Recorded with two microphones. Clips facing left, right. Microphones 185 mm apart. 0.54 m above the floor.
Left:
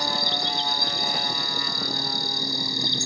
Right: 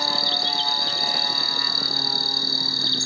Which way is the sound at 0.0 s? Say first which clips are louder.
Even; 15° left (ahead or behind).